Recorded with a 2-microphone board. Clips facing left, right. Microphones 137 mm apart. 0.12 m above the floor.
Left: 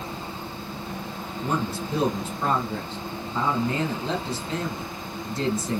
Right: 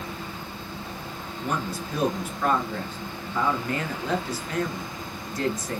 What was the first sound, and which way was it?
A man speaking, 25° left (ahead or behind).